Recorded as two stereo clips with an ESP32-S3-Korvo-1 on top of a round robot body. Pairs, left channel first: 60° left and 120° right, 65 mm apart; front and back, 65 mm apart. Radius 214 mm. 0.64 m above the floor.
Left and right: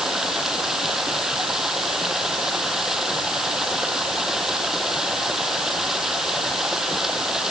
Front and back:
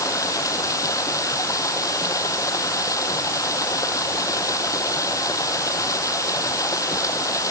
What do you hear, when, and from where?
0.0 s running water: 35° right